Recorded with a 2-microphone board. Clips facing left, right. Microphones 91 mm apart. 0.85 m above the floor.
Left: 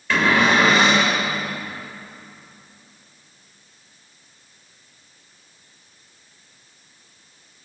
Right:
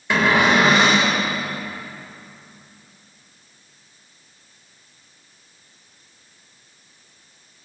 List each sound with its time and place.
0.1 s a cupboard door: 20° right (ahead or behind), 4 m